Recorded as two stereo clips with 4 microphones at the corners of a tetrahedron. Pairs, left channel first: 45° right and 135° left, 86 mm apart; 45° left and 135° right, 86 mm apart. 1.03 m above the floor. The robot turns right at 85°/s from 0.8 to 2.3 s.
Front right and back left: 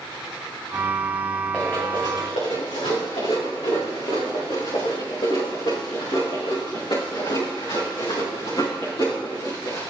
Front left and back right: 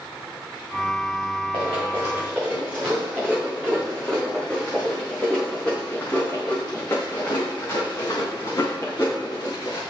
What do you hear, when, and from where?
1.5 s running footsteps: 120° right, 7 m; by 9.8 s 5° right, 6.5 m